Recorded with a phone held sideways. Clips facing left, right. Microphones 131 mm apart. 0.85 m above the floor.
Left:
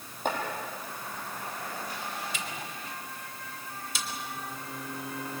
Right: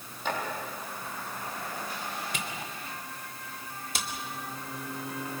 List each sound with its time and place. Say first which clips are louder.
0.2 s chopping: left 2 dB; 45° left (ahead or behind), 6.5 m
2.3 s a camera shutter: right 1 dB; 55° right (ahead or behind), 2.5 m